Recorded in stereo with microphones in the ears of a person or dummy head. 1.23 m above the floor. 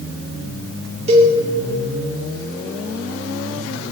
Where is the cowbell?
35° right (ahead or behind), 1.9 m.